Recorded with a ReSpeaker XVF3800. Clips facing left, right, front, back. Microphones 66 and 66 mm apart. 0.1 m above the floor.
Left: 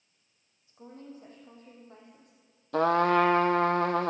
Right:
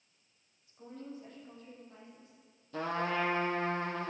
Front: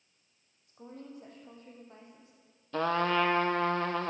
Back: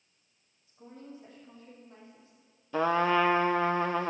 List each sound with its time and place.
0.7 s a woman speaking: 35° left, 4 m; by 2.3 s 50° left, 4 m
2.7 s a trumpet: 100° left, 0.5 m